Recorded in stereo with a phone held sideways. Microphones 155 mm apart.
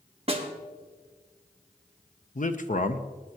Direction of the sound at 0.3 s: 40° right (ahead or behind).